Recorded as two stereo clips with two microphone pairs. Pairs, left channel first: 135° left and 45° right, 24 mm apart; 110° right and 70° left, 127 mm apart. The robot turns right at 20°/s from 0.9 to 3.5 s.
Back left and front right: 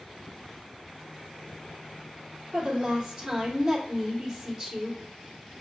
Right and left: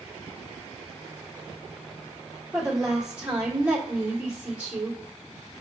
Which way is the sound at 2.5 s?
20° right.